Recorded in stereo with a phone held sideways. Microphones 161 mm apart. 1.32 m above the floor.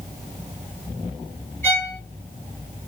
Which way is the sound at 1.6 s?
10° left (ahead or behind).